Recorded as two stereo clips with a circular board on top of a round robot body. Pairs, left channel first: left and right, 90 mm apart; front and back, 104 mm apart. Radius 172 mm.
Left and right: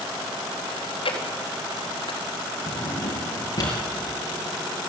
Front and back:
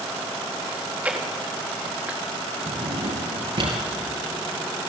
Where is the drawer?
145° left, 5.5 m.